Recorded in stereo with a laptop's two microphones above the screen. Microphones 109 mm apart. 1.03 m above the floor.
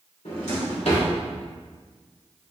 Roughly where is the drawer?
Left.